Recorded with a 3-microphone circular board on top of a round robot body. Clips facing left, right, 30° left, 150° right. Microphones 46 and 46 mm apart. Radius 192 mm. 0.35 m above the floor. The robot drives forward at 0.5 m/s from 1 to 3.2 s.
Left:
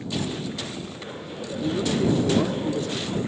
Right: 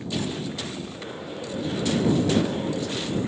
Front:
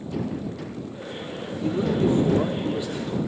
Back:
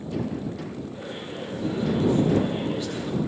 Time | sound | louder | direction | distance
1.6 | a man speaking | left 1 dB, front 1 dB | 55° left | 1.2 m